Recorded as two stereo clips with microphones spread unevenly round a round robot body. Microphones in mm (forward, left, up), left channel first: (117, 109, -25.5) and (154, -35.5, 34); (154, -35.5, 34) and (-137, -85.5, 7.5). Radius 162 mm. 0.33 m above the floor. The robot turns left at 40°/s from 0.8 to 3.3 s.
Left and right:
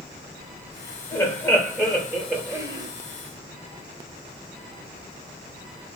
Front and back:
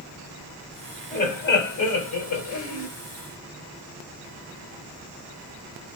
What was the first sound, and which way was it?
Laughter, 75° left.